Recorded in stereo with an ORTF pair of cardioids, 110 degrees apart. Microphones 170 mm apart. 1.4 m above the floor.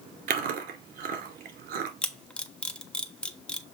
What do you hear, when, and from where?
0.3 s chewing: 60° right, 2 m
2.0 s a camera shutter: 5° left, 1.0 m